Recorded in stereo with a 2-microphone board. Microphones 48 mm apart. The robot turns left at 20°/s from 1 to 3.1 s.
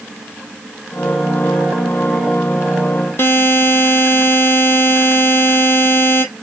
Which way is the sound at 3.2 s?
50° left (ahead or behind).